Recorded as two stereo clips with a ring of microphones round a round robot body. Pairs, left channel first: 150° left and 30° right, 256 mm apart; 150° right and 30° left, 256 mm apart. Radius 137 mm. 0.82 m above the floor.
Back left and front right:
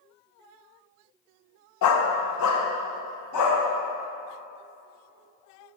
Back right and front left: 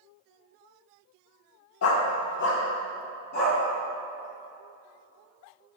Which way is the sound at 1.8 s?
175° left.